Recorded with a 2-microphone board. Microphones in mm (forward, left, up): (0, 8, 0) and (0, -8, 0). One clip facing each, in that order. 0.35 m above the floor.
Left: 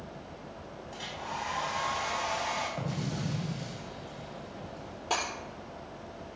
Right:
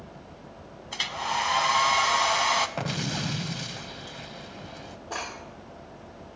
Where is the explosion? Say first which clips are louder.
Right 5 dB; 75° right (ahead or behind), 0.5 m.